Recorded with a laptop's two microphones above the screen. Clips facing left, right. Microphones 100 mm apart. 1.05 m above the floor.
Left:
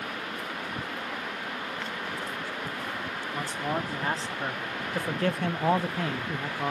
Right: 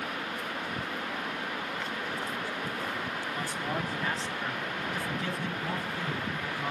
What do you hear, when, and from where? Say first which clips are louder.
3.3 s a man speaking: left 5 dB; 25° left (ahead or behind), 2.5 m; by 6.7 s 50° left (ahead or behind), 1.0 m